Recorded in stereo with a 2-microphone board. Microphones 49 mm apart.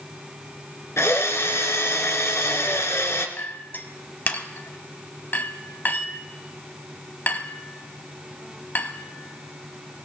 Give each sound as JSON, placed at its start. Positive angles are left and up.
{"t": 1.0, "sound": "a drill", "side_deg": 70, "distance_m": 2.5}
{"t": 3.4, "sound": "a clink", "side_deg": 40, "distance_m": 1.6}